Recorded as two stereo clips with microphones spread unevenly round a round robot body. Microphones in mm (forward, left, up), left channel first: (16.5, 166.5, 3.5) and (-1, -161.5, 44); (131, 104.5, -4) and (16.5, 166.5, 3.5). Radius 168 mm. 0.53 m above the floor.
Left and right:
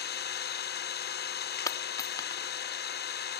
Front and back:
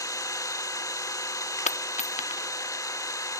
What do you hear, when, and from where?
0.0 s an engine running: 35° left, 1.0 m
1.7 s a dropped coin: 10° left, 0.5 m